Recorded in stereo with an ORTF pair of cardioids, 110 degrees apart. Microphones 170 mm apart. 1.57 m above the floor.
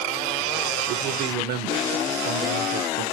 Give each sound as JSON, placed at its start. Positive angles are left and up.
{"t": 0.9, "sound": "a man speaking", "azimuth_deg": -70, "distance_m": 0.9}